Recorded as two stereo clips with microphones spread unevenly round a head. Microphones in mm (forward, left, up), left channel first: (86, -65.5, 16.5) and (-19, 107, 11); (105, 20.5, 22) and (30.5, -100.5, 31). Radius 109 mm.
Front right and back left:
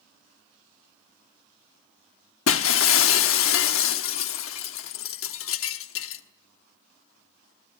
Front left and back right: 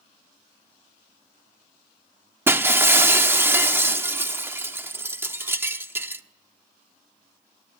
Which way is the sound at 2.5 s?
50° right.